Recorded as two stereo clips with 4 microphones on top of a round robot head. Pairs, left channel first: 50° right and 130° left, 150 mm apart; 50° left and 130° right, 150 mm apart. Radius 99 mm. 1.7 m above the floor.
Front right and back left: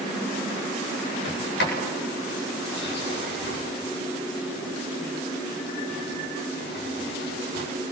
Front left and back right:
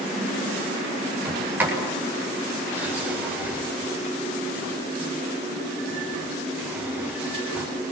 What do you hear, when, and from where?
1.2 s a sliding door: 50° right, 8 m